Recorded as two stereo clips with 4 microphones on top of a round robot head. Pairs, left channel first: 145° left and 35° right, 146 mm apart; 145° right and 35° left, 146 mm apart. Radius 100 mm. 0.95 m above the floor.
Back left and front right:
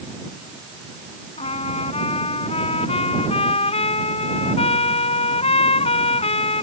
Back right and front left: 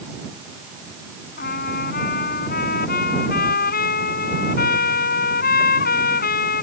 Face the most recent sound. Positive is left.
turn(degrees=-165)